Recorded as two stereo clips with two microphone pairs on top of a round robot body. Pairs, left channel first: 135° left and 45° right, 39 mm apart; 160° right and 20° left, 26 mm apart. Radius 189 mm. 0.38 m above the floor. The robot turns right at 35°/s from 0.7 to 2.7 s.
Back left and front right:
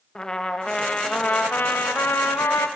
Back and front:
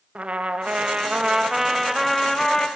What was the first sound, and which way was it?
A trumpet, 65° left.